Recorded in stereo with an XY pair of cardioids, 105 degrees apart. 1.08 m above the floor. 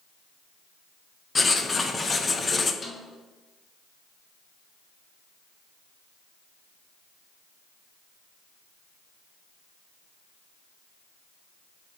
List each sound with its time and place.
1.4 s writing: 25° left, 0.6 m
2.8 s a snare drum: 30° left, 1.7 m